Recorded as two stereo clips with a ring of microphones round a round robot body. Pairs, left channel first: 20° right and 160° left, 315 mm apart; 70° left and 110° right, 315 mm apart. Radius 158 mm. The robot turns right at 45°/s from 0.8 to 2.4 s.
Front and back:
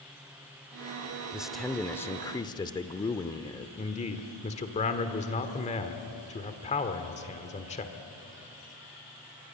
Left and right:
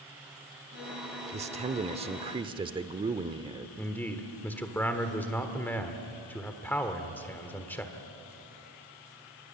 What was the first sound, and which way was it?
A man speaking, 120° right.